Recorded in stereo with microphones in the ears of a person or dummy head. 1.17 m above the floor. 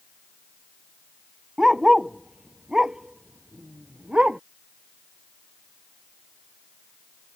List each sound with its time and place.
1.6 s a dog barking: 5° right (ahead or behind)